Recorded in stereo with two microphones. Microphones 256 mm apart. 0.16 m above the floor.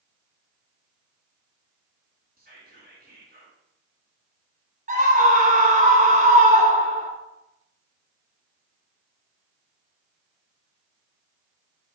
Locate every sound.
2.4 s whispering: 35° right (ahead or behind), 1.9 m
4.9 s a scream: 30° right (ahead or behind), 1.5 m